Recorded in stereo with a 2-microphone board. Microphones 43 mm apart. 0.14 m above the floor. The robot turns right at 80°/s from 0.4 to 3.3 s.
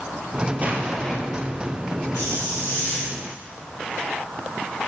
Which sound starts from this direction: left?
A hiss, at 2.1 s.